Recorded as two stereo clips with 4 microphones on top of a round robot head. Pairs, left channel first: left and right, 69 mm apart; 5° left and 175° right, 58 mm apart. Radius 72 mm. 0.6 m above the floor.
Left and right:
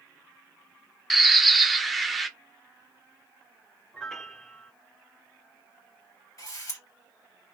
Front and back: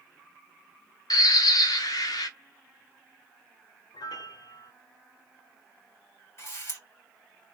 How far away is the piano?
About 0.6 m.